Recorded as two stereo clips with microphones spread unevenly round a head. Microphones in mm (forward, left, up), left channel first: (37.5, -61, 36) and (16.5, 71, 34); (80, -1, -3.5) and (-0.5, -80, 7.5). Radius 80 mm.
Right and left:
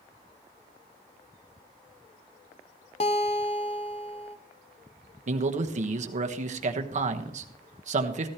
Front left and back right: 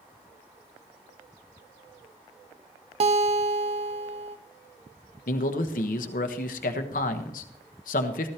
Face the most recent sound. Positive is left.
turn(degrees=65)